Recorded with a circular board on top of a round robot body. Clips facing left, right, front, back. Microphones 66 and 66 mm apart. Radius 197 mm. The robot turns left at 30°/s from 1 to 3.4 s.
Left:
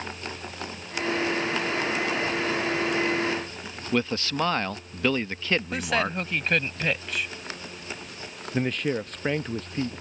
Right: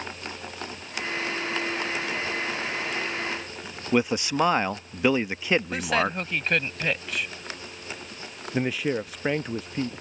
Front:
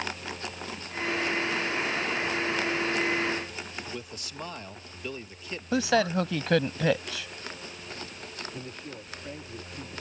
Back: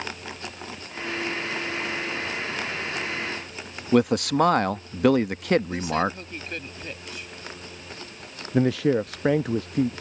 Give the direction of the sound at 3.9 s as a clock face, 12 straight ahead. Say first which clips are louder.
Right 3 dB, back 20 dB; 5 o'clock.